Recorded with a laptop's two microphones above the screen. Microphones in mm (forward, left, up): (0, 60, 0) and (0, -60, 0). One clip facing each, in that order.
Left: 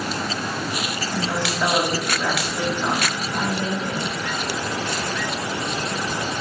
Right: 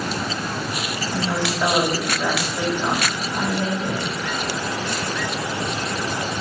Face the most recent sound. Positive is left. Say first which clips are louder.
# right 2 dB
turn(degrees=-10)  # may be behind; listen again after turning